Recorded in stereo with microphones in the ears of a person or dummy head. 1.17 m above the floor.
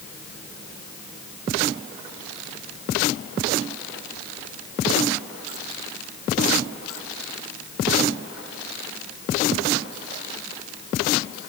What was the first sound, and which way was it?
Only background noise.